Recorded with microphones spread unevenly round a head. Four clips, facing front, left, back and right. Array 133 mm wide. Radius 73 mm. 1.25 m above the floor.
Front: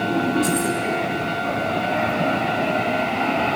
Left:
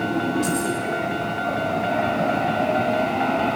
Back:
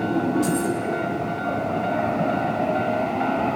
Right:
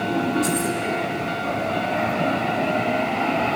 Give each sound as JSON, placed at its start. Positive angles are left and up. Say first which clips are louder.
{"t": 0.4, "sound": "keys jangling", "louder": "even, front 1 dB", "azimuth_deg": 160, "distance_m": 3.5}